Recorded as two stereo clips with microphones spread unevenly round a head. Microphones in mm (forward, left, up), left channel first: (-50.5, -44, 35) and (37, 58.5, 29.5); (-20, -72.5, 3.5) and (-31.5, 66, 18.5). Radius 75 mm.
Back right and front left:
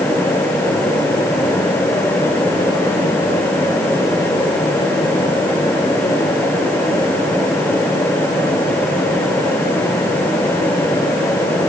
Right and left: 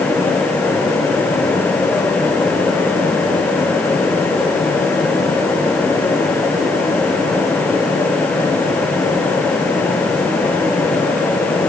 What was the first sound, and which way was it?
Only background noise.